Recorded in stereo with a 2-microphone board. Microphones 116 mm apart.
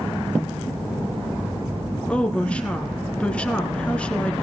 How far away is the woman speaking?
About 2.0 m.